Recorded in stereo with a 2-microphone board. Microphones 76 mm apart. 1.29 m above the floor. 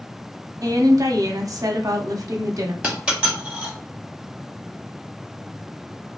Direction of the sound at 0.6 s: 50° right (ahead or behind).